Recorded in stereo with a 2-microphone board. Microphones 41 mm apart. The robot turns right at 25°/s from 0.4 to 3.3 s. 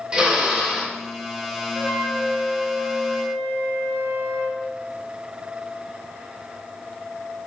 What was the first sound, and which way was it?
A drill, 25° right (ahead or behind).